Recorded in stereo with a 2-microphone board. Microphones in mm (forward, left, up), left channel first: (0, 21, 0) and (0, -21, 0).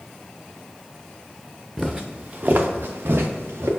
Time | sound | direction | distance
1.8 | footsteps | centre (ahead or behind) | 0.5 m